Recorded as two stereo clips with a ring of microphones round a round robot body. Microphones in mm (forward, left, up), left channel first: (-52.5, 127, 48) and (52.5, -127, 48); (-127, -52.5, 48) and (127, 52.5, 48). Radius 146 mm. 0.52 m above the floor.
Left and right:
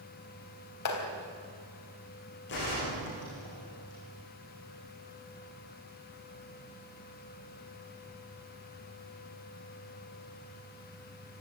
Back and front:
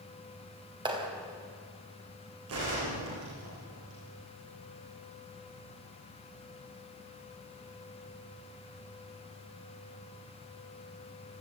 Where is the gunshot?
60° left, 9.5 m.